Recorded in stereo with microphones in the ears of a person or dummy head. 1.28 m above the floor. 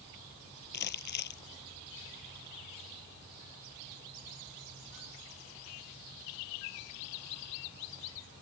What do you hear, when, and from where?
0.7 s crumpling: 50° left (ahead or behind)